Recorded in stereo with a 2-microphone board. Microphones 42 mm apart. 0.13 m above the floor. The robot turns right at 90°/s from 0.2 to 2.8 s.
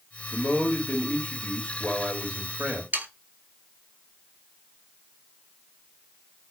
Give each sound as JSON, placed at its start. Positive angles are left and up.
{"t": 0.3, "sound": "a man speaking", "azimuth_deg": 15, "distance_m": 1.8}
{"t": 2.9, "sound": "sawing", "side_deg": -50, "distance_m": 0.5}